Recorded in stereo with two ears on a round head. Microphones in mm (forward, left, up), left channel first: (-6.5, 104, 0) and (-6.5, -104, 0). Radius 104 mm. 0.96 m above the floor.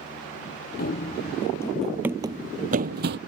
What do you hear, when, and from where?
0.8 s running footsteps: 40° left (ahead or behind); by 3.2 s 50° right (ahead or behind)